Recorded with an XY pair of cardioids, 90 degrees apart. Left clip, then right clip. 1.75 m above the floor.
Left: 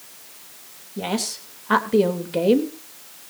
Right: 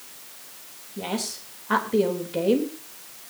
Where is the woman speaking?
35° left, 3.5 m.